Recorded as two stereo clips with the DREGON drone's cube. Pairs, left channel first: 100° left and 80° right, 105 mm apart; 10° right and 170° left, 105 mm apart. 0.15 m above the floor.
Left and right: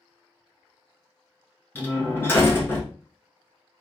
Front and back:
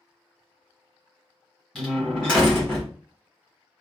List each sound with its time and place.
1.8 s a door slam: 65° left, 1.1 m